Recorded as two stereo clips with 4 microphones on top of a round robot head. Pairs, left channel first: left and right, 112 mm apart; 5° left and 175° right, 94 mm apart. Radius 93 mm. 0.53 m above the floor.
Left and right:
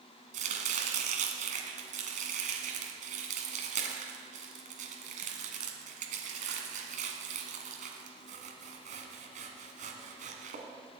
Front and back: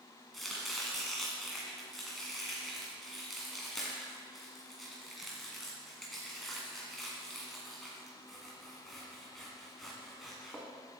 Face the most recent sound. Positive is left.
turn(degrees=-85)